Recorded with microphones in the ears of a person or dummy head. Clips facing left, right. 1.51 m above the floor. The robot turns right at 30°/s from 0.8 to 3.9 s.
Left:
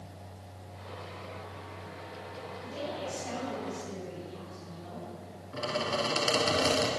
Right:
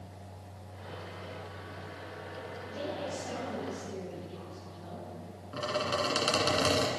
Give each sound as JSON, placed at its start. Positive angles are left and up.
{"t": 2.6, "sound": "a woman speaking", "azimuth_deg": 125, "distance_m": 4.0}
{"t": 5.5, "sound": "a squeak", "side_deg": -25, "distance_m": 1.5}